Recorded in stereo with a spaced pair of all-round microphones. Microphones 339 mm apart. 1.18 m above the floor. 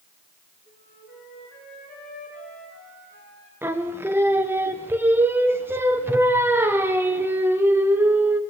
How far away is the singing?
About 0.7 m.